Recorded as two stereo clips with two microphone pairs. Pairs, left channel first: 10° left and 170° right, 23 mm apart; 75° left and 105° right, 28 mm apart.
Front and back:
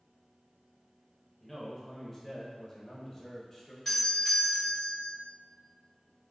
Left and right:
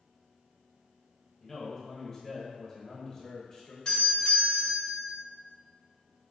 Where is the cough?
I don't hear a cough.